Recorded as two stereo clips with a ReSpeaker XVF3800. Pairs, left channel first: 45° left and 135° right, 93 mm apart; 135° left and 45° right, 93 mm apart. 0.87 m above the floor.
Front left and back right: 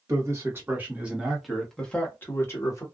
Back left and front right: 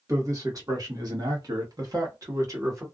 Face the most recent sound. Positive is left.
turn(degrees=5)